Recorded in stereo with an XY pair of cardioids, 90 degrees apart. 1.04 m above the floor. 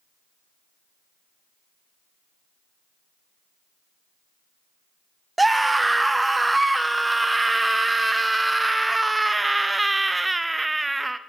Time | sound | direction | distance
5.4 | a scream | 15° right | 0.6 m